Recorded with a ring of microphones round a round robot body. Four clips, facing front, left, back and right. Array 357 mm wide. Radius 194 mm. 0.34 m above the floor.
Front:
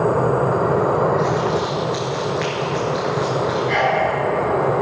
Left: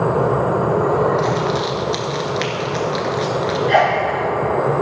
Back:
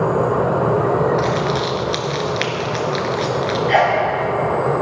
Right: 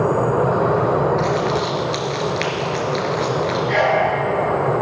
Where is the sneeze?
135° left, 3 m.